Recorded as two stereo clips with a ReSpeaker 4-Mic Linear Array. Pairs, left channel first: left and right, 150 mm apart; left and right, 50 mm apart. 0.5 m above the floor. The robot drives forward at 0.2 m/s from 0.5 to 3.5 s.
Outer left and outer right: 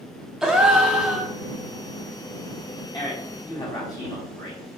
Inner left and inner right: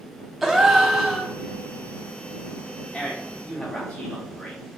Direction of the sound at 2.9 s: 25° left (ahead or behind).